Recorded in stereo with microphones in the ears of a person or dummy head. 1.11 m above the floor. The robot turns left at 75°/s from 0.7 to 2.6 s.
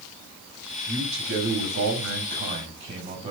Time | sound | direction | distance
0.9 | a man speaking | 25° right | 5.5 m